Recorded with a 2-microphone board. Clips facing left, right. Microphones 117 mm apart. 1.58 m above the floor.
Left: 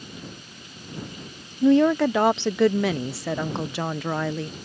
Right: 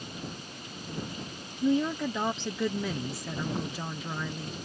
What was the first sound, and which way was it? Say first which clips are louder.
A woman speaking: left 9 dB; 75° left (ahead or behind).